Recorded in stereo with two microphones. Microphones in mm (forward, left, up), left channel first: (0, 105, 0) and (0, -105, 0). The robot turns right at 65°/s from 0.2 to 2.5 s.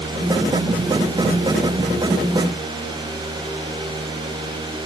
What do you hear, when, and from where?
Only background noise.